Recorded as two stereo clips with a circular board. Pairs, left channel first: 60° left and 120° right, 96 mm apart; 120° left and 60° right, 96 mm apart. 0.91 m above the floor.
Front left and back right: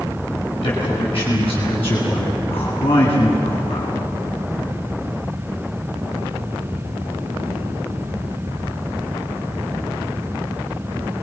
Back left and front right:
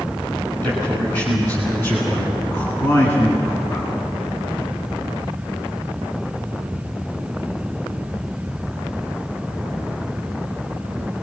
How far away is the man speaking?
About 7 m.